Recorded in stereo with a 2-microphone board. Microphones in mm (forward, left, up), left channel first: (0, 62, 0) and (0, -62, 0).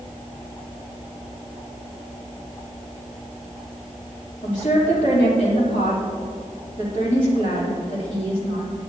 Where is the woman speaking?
85° left, 3 m.